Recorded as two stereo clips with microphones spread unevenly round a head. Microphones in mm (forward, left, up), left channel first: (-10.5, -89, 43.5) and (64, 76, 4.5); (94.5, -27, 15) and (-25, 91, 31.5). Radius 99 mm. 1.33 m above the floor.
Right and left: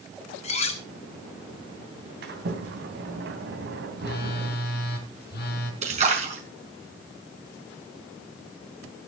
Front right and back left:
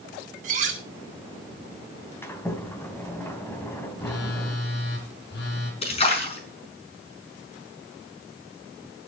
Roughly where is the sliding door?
Ahead left.